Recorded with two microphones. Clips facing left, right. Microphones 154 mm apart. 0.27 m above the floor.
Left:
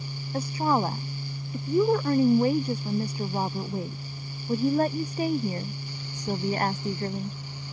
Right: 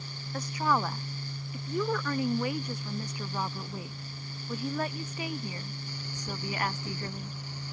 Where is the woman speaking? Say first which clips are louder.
Left 4 dB; 30° left (ahead or behind); by 7.3 s 40° left (ahead or behind).